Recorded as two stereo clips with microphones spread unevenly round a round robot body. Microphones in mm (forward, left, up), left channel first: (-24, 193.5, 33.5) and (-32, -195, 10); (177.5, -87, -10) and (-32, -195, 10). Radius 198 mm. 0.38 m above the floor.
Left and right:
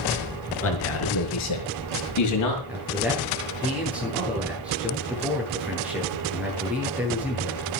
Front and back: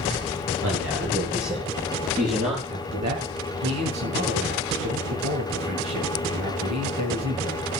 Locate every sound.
0.6 s a man speaking: 145° left, 5.5 m; by 2.6 s 130° left, 6 m
2.7 s a man speaking: straight behind, 8.5 m